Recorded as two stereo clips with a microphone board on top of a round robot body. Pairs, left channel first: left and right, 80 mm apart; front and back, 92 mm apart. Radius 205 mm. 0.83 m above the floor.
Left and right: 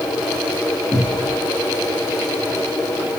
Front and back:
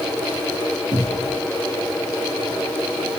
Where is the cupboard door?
135° right, 1.4 m.